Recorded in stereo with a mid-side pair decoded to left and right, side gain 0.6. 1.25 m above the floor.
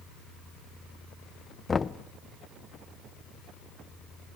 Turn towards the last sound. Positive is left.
turn(degrees=25)